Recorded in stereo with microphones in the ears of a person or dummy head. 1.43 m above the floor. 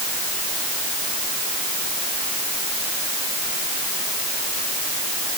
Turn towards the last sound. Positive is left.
No sound to turn to.